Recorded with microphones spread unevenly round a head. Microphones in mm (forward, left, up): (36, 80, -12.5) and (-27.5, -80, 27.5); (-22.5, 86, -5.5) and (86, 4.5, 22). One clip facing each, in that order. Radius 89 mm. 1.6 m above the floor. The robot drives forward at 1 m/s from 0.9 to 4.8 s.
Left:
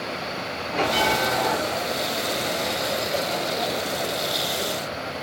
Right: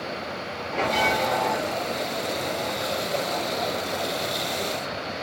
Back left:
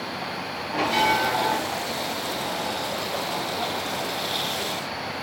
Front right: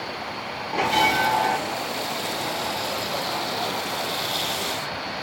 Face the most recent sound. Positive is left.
turn(degrees=-30)